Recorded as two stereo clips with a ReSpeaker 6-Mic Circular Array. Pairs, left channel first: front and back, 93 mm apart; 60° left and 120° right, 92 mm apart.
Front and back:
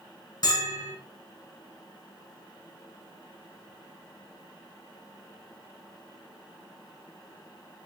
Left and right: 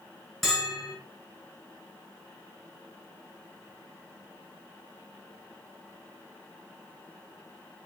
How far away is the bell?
About 1.0 m.